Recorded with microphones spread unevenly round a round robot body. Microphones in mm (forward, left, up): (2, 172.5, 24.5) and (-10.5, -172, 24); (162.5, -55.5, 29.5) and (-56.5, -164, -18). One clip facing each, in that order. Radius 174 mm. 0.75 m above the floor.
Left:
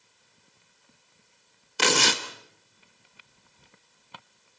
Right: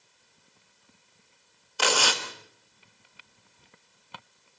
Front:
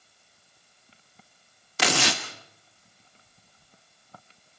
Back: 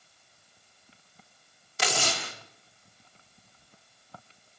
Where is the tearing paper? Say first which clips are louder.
Left 2 dB, front 5 dB; 35° left, 1.3 m.